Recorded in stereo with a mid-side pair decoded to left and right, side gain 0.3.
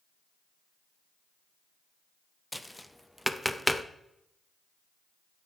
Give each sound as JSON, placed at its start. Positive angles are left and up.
{"t": 2.5, "sound": "tapping", "azimuth_deg": 5, "distance_m": 0.6}